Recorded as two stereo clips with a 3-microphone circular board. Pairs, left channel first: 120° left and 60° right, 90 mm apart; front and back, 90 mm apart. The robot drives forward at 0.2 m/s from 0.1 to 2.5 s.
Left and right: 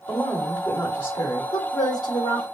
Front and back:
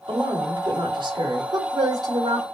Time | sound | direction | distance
0.1 | a woman speaking | 175° left | 1.0 m
1.5 | a woman speaking | 145° left | 1.2 m